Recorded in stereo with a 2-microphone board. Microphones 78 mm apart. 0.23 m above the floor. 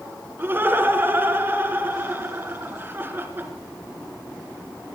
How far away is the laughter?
About 3 m.